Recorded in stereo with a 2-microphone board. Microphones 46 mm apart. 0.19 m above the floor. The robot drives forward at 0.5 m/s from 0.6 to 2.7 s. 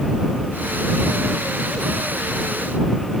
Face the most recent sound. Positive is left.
No sound to turn to.